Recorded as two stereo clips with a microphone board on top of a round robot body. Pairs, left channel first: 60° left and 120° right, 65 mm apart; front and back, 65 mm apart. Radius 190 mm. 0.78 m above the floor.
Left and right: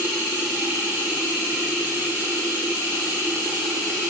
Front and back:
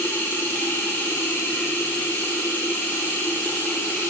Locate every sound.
0.0 s running water: 60° right, 0.9 m